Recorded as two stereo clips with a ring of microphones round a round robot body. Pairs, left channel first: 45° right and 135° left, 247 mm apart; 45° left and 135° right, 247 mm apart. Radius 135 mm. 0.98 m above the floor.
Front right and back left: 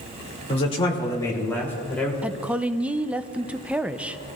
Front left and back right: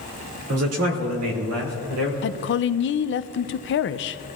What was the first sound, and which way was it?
A man speaking, 110° right.